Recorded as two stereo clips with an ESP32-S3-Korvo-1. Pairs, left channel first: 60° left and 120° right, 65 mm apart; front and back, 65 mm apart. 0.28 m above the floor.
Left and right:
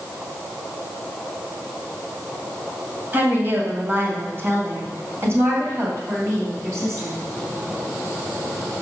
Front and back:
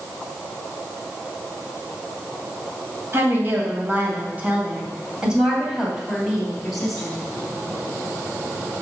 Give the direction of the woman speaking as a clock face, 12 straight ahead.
5 o'clock.